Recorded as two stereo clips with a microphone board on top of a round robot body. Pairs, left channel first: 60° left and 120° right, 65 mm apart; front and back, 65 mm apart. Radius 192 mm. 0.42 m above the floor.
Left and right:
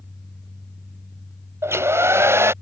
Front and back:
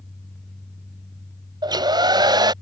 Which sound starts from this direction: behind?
A hair dryer, at 1.6 s.